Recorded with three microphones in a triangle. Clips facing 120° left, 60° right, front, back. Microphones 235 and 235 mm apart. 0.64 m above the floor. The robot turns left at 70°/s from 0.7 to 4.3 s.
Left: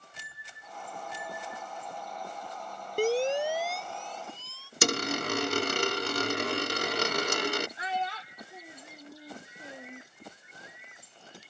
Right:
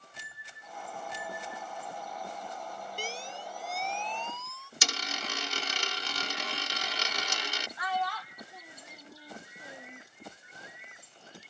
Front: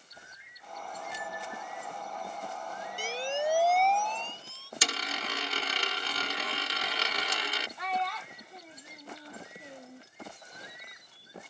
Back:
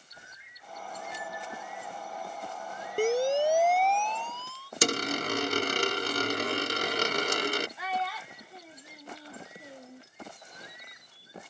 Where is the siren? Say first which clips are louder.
Left 19 dB, back 9 dB; 155° left; by 4.7 s 60° left.